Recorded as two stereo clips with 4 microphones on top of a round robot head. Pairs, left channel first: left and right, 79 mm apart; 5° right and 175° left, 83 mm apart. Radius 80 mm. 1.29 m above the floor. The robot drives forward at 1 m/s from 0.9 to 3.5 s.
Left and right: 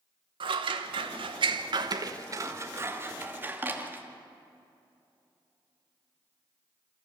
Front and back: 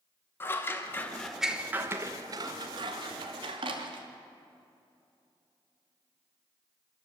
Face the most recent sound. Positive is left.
turn(degrees=-155)